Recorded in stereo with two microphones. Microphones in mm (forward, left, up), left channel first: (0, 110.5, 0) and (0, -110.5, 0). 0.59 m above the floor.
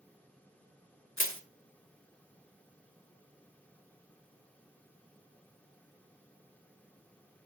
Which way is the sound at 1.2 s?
65° left (ahead or behind).